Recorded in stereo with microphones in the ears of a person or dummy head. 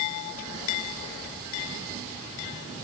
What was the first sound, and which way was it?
Only background noise.